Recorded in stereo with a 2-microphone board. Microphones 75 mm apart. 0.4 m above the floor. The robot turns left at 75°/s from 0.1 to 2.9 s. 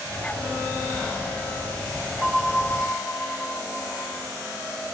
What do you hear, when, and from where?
2.2 s a bell: 145° right, 0.9 m; by 4.2 s 160° left, 0.9 m